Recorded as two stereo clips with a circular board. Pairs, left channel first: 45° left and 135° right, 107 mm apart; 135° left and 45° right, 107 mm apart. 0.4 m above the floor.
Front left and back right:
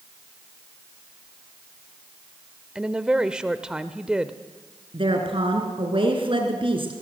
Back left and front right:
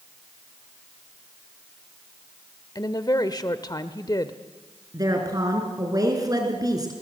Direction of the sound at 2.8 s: 150° left.